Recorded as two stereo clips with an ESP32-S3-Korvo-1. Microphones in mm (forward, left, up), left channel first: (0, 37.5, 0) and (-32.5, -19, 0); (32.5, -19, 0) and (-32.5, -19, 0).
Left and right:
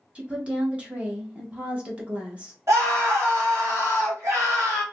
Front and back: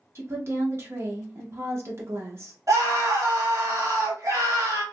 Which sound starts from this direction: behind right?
A scream, at 2.7 s.